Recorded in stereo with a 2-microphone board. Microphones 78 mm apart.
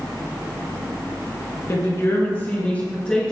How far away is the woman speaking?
About 2 m.